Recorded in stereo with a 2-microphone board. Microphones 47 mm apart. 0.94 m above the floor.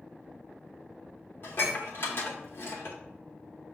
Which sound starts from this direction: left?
Dishes clattering, at 1.4 s.